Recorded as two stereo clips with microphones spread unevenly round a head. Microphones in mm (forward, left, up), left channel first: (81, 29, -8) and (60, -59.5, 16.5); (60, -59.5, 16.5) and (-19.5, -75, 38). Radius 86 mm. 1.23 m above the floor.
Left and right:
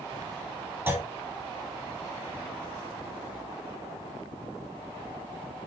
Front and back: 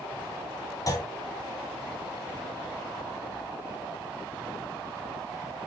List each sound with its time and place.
0.9 s a clunk: 35° right, 2.5 m